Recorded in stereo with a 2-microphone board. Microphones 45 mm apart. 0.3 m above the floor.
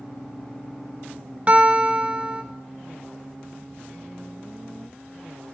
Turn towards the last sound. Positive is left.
turn(degrees=-30)  # may be behind; listen again after turning